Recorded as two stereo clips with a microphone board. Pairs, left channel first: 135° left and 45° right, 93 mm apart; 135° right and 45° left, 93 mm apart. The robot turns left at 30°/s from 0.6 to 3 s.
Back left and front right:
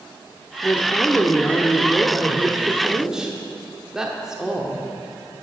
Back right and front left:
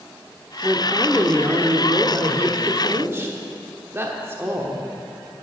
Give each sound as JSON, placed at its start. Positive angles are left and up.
{"t": 0.6, "sound": "a woman speaking", "azimuth_deg": 100, "distance_m": 0.9}